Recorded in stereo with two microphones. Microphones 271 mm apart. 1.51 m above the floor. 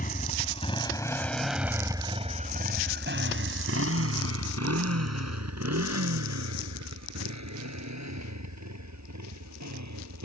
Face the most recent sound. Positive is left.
turn(degrees=-85)